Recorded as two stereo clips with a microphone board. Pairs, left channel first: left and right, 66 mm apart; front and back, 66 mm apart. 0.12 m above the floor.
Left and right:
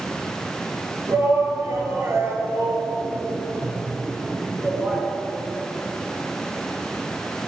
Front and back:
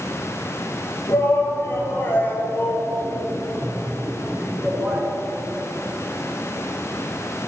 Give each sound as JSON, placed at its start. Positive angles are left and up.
{"t": 1.1, "sound": "a shout", "azimuth_deg": -45, "distance_m": 2.5}